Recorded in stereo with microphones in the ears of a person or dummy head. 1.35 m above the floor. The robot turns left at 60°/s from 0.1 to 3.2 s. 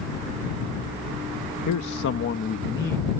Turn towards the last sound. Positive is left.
turn(degrees=-5)